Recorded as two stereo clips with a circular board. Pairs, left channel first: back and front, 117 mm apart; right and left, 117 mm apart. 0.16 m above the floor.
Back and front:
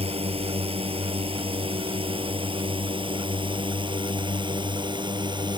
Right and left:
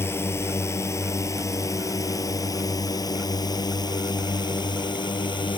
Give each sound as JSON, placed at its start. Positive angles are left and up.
{"t": 0.0, "sound": "a drone", "azimuth_deg": -25}